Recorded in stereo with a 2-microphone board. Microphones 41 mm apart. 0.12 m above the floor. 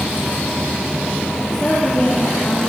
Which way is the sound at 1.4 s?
20° left (ahead or behind).